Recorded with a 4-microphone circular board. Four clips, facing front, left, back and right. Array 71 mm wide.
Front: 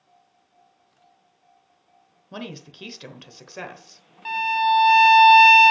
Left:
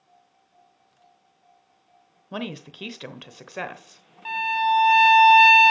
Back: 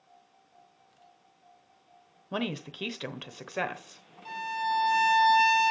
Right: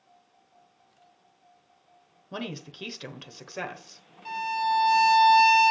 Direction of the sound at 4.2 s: 35° left.